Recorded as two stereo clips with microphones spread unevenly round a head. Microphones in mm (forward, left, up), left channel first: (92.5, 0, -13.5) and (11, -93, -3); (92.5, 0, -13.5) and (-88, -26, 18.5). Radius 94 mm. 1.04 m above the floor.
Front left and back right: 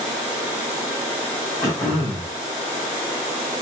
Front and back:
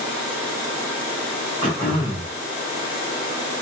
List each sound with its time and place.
1.6 s throat clearing: 120° left, 2.5 m